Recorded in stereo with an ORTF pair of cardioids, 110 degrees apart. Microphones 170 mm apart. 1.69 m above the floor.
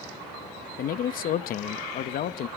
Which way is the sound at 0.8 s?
50° left.